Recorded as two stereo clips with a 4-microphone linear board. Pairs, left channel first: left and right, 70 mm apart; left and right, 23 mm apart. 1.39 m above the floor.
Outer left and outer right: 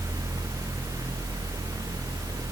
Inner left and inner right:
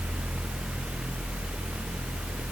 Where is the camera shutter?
I don't hear a camera shutter.